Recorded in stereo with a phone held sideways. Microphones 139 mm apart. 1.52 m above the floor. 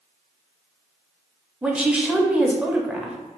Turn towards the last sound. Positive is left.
turn(degrees=-10)  # may be behind; listen again after turning